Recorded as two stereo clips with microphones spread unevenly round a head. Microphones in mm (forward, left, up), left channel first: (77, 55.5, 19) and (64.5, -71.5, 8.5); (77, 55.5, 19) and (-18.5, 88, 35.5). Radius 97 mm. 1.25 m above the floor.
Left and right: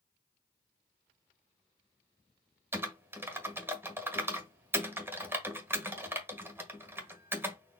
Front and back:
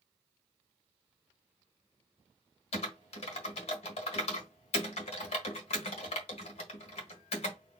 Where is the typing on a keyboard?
25° right, 1.4 m.